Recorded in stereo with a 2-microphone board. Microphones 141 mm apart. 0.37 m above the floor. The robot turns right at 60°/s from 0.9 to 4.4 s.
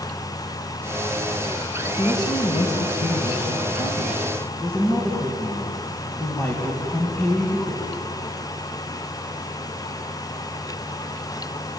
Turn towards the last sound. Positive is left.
turn(degrees=165)